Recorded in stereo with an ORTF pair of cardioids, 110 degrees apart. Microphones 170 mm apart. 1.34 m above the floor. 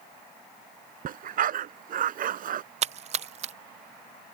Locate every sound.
1.1 s a dog barking: 60° right
2.8 s a splash: 40° right